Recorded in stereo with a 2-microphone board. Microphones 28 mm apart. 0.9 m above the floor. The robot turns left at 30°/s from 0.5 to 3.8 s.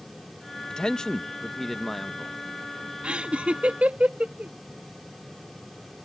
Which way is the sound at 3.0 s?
45° right (ahead or behind).